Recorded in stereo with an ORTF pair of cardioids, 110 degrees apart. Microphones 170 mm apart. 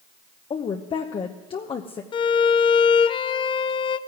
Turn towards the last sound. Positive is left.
turn(degrees=35)